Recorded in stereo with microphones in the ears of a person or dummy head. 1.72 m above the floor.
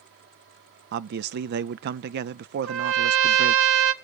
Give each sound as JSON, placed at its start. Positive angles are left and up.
{"t": 0.9, "sound": "a man speaking", "side_deg": -60, "distance_m": 0.5}
{"t": 2.6, "sound": "a trumpet", "side_deg": -75, "distance_m": 1.5}